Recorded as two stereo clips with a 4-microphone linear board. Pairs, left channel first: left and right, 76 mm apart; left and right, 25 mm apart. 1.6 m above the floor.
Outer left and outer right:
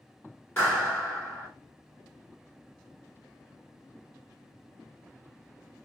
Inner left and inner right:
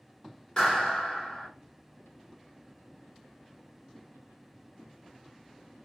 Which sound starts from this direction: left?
A clap, at 0.6 s.